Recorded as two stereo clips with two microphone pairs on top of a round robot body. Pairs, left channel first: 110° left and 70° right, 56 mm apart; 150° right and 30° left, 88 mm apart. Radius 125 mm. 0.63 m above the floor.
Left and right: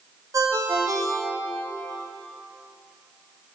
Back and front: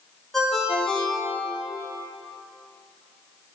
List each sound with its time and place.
0.3 s a ringtone: 65° right, 1.4 m